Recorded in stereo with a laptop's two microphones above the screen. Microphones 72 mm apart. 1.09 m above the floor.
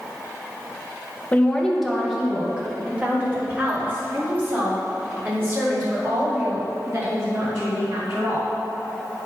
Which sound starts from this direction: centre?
A woman speaking, at 1.3 s.